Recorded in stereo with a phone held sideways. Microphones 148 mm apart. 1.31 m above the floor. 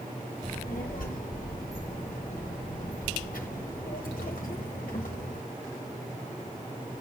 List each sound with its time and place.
0.4 s a child speaking: 70° left (ahead or behind), 0.9 m